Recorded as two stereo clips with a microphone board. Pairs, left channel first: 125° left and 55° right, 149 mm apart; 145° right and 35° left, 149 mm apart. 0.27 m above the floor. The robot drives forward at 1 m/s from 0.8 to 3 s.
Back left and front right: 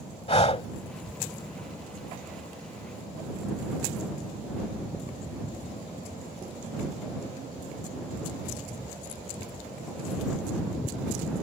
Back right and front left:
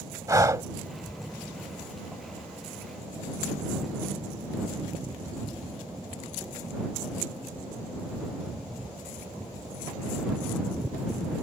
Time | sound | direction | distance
0.3 | breathing | 95° left | ?